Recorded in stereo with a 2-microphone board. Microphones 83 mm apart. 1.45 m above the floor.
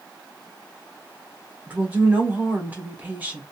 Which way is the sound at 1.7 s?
20° right (ahead or behind).